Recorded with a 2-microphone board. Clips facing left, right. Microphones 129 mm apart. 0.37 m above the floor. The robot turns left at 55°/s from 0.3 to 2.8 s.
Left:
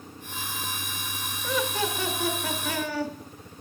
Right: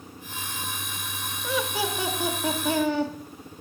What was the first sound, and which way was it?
Laughter, centre (ahead or behind).